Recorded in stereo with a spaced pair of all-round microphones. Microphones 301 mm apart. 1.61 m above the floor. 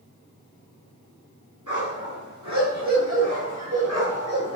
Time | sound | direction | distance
1.7 | a dog barking | 75° right (ahead or behind) | 8 m